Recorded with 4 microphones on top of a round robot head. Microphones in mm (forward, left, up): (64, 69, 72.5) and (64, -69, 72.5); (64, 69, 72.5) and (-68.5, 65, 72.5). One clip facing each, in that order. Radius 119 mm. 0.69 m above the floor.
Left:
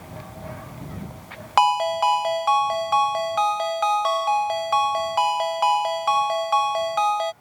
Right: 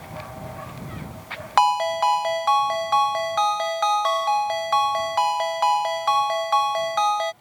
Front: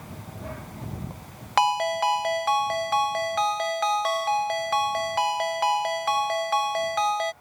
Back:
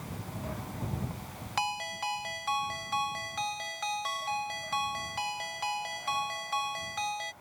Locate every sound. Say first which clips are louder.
1.6 s a ringtone: even, front 13 dB; 10° left